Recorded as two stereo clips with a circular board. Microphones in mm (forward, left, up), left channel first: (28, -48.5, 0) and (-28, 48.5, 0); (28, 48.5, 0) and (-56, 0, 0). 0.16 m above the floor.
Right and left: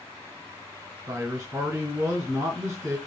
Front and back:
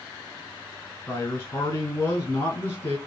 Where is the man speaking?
65° left, 1.4 m.